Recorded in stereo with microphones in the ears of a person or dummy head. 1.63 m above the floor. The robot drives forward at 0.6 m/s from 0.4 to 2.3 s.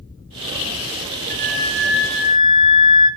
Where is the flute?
10° left (ahead or behind), 2.5 m; by 3.1 s 5° left (ahead or behind), 3 m.